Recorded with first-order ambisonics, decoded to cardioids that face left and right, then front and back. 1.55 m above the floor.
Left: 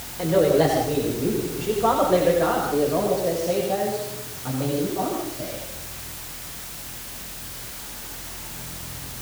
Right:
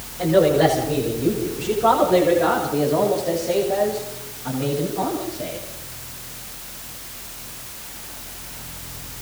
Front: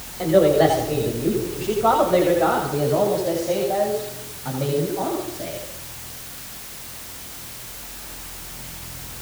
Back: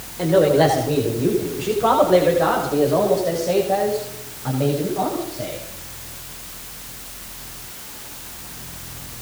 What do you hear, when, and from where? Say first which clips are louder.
0.2 s a man speaking: right 2 dB, even; 165° left, 6.5 m; by 5.6 s 170° left, 9.5 m